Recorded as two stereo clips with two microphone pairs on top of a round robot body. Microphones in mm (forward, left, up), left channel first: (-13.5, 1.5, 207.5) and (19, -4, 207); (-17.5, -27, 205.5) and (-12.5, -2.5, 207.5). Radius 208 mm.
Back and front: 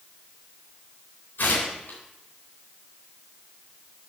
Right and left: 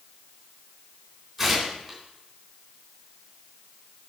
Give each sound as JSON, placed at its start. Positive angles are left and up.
{"t": 1.4, "sound": "tearing paper", "azimuth_deg": 160, "distance_m": 3.5}